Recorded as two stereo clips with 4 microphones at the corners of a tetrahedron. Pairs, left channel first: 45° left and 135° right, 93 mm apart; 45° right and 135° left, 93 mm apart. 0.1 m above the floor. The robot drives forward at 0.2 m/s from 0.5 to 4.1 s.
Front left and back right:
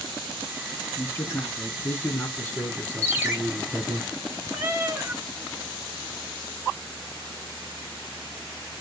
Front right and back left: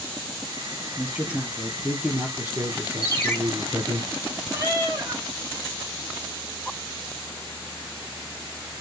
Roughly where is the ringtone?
Right.